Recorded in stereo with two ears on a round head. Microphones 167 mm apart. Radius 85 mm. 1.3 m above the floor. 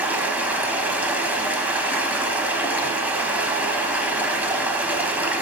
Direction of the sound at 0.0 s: 10° right (ahead or behind).